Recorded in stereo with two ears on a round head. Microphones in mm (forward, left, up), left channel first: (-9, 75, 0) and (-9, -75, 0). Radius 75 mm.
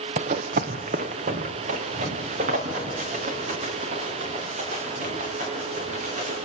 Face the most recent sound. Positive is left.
turn(degrees=-45)  # may be behind; listen again after turning